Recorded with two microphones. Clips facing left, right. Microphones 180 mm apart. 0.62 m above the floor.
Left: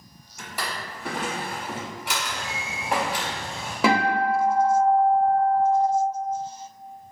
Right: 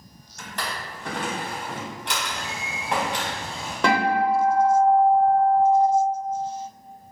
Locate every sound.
0.4 s a drawer: 10° left (ahead or behind), 0.9 m
2.3 s a bird: 40° right (ahead or behind), 1.4 m
3.8 s a guitar: 5° left (ahead or behind), 0.8 m